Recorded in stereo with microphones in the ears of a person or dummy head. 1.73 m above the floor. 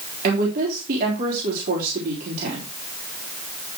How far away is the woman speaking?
About 4 m.